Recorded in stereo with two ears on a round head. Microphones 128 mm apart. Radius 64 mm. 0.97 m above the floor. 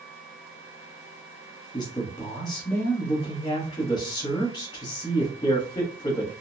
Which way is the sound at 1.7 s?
25° left (ahead or behind).